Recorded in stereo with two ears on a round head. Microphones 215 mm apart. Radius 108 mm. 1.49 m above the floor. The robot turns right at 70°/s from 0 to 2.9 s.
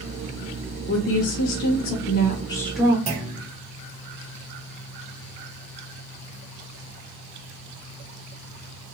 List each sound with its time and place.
0.9 s a woman speaking: 50° left, 0.5 m; by 3.0 s 170° right, 0.5 m
3.1 s a clunk: 25° right (ahead or behind), 1.0 m